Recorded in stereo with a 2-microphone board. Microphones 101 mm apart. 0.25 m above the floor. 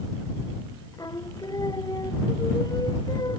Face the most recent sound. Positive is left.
turn(degrees=40)  # may be behind; listen again after turning